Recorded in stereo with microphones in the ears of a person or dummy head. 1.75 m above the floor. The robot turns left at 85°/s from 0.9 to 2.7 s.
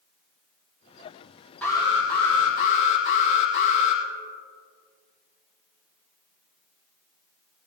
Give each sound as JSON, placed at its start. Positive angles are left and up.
{"t": 1.6, "sound": "an alarm", "azimuth_deg": 165, "distance_m": 3.0}